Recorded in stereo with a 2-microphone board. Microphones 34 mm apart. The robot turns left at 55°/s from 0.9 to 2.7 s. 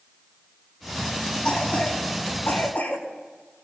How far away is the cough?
About 5 m.